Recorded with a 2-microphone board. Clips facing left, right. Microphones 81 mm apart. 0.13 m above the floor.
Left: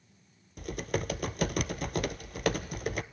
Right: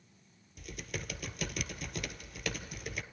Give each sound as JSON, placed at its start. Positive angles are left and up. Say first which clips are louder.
{"t": 0.6, "sound": "typing on a keyboard", "louder": "left 10 dB", "side_deg": 55, "distance_m": 0.5}